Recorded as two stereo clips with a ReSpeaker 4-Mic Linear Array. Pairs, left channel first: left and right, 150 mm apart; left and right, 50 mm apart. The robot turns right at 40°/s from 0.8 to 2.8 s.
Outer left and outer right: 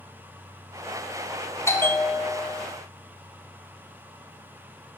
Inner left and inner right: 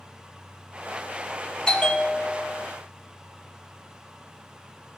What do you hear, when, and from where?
1.7 s a bell: 20° left (ahead or behind), 1.2 m; by 2.7 s 5° left (ahead or behind), 1.2 m